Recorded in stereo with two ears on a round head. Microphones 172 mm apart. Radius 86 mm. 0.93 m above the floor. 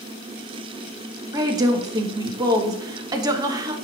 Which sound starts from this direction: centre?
A woman speaking, at 1.3 s.